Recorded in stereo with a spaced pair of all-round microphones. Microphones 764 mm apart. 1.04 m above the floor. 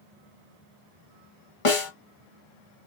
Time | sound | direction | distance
1.6 | a snare drum | 45° left (ahead or behind) | 0.9 m